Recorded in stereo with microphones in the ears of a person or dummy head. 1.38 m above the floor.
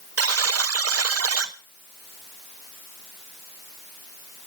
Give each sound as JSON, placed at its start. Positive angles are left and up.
{"t": 0.2, "sound": "a buzzer", "side_deg": -75, "distance_m": 0.8}